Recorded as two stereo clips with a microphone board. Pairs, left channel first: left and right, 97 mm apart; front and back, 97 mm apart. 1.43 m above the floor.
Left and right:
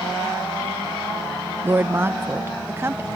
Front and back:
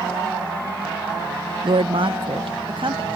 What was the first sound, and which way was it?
A woman speaking, 155° right.